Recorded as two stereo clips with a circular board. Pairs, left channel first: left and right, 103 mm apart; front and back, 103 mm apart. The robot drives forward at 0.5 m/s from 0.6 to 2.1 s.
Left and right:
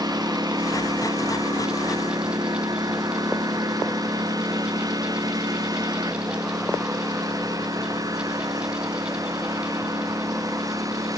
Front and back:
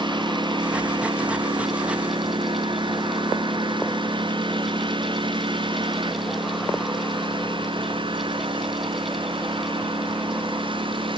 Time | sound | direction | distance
0.0 | a lawn mower | 140° right | ?